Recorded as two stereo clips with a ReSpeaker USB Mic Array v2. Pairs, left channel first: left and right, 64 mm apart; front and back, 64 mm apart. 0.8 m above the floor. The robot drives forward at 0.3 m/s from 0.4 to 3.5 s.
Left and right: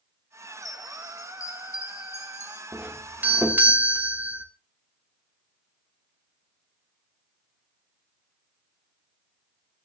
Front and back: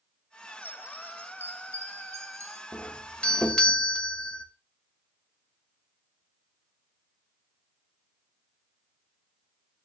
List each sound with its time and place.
0.6 s a chime: 110° left, 0.8 m; by 2.6 s 140° left, 1.2 m
2.7 s a doorbell: 45° right, 1.2 m; by 4.5 s 65° right, 1.2 m